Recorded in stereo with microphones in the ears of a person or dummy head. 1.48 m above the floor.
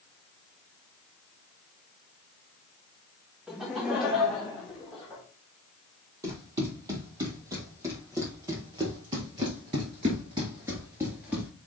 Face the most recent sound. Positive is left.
turn(degrees=-5)  # may be behind; listen again after turning